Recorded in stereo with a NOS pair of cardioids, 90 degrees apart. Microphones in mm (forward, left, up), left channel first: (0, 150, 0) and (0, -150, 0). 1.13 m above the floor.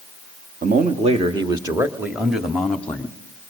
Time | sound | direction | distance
0.6 | a man speaking | 30° right | 1.7 m